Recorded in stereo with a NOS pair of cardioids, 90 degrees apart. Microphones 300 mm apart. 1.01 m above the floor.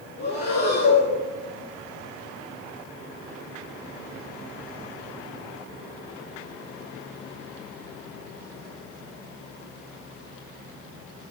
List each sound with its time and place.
0.2 s breathing: 35° left, 7.5 m